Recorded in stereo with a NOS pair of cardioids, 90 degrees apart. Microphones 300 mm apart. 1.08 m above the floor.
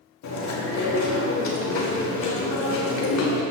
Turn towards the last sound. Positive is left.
turn(degrees=65)